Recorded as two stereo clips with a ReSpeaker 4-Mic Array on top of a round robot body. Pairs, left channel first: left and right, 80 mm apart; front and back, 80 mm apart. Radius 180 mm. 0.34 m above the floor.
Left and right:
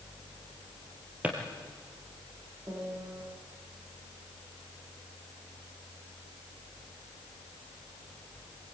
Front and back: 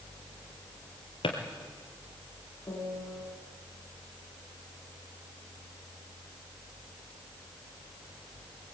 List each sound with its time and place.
1.2 s a drawer: 15° right, 3 m
2.7 s a piano: 40° right, 5 m